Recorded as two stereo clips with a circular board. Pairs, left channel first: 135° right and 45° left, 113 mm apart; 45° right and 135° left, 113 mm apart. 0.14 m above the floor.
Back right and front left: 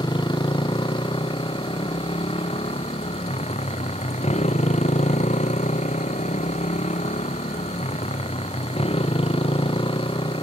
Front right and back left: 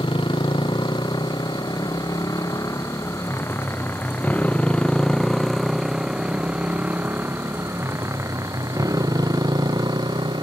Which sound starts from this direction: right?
A motorcycle, at 0.0 s.